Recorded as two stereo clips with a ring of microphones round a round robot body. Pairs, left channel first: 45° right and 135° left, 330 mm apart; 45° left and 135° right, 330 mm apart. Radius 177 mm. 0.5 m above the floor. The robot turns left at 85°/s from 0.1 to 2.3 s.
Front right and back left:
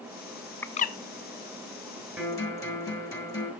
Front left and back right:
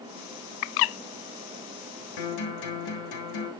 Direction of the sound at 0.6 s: 40° left.